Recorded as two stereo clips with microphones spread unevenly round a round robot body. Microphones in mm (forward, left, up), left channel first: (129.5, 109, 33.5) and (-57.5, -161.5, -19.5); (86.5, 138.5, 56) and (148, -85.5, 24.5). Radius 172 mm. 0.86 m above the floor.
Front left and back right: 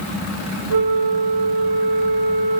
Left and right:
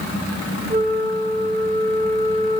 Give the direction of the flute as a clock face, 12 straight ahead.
5 o'clock.